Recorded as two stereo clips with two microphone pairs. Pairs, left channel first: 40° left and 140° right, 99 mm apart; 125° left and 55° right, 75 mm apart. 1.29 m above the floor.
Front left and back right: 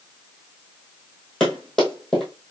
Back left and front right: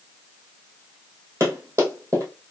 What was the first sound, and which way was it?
Running footsteps, 45° right.